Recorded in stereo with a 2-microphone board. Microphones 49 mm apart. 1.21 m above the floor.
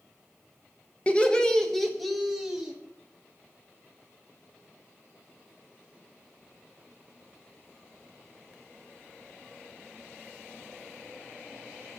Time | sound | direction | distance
1.1 | laughter | 25° left (ahead or behind) | 1.2 m